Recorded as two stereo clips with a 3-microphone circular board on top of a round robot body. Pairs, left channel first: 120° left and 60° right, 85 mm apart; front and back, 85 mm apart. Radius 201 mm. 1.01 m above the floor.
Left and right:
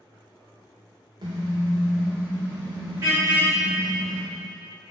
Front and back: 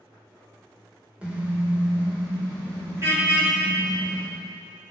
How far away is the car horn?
About 2.5 m.